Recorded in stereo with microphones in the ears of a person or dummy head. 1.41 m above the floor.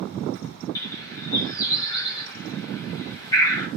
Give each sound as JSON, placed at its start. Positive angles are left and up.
{"t": 0.8, "sound": "a bird", "side_deg": 15, "distance_m": 1.1}